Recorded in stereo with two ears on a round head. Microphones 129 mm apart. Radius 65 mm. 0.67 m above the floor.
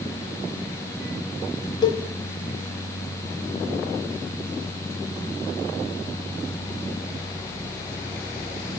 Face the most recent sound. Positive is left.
turn(degrees=30)  # may be behind; listen again after turning